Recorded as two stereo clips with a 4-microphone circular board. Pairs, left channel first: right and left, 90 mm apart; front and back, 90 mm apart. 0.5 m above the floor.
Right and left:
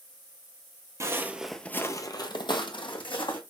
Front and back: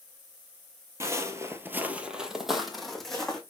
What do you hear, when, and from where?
1.0 s footsteps: 130° left, 0.6 m; by 3.4 s 85° right, 1.4 m